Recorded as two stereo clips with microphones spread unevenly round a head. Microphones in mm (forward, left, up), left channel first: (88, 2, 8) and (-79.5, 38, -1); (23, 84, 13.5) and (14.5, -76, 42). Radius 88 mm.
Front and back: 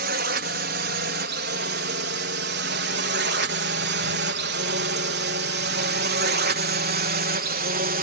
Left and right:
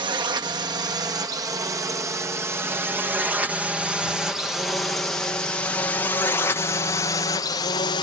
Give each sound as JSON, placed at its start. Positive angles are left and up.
{"t": 0.0, "sound": "a drone", "azimuth_deg": -160}